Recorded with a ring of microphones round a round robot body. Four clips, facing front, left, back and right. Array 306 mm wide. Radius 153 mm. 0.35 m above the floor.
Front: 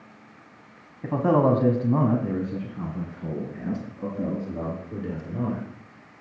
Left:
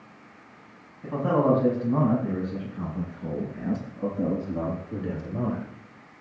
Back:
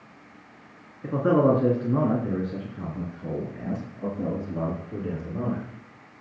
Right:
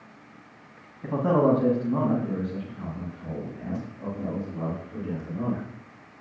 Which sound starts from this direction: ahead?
A man speaking, at 1.0 s.